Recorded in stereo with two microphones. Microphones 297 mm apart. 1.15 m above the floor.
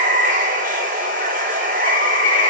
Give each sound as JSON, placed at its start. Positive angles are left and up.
{"t": 0.0, "sound": "running water", "side_deg": -25, "distance_m": 1.1}